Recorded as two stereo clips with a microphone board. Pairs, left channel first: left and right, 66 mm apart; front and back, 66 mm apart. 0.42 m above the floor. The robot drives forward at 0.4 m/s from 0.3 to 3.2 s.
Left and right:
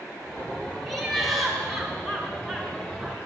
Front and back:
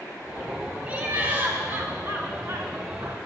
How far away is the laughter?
About 1.2 m.